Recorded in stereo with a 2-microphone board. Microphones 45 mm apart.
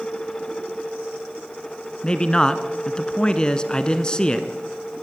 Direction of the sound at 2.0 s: 20° left (ahead or behind).